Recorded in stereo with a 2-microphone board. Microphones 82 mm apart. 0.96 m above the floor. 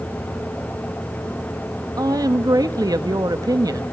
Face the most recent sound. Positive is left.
turn(degrees=-50)  # may be behind; listen again after turning